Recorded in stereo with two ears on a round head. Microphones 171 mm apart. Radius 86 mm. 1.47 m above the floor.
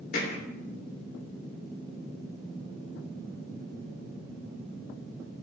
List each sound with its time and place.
0.1 s hammering: 50° left (ahead or behind), 3 m